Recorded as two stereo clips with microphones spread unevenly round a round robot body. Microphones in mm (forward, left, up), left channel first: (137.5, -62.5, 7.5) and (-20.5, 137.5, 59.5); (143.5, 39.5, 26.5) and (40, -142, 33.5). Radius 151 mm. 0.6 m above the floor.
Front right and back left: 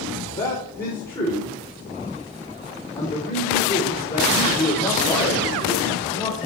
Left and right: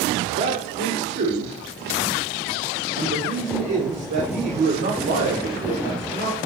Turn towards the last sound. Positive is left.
turn(degrees=-115)